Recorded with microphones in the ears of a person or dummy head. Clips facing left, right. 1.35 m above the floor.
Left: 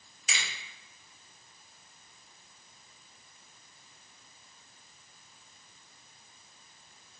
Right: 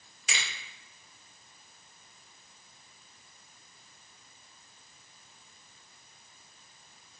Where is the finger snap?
50° right (ahead or behind), 1.6 m.